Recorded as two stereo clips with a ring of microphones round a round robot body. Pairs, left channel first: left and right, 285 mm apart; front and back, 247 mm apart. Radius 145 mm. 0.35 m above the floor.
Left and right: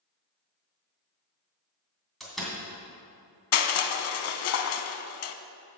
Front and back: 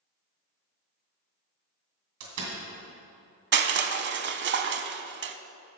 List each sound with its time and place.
2.2 s a door slam: straight behind, 2 m
3.5 s crushing: 130° left, 0.6 m